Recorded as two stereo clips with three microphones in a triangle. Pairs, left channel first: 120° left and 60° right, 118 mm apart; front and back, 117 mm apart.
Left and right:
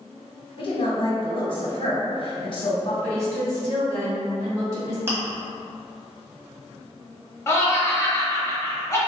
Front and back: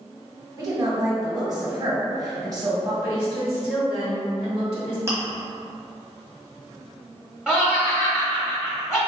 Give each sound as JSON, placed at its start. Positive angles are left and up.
{"t": 0.6, "sound": "a woman speaking", "azimuth_deg": 135, "distance_m": 1.5}
{"t": 3.0, "sound": "a woman speaking", "azimuth_deg": -100, "distance_m": 1.9}
{"t": 5.1, "sound": "chewing", "azimuth_deg": -125, "distance_m": 1.3}
{"t": 7.5, "sound": "laughter", "azimuth_deg": 105, "distance_m": 0.9}